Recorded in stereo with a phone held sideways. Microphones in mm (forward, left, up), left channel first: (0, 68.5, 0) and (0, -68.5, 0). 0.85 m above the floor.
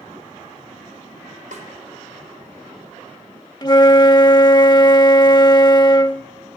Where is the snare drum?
65° right (ahead or behind), 4 m.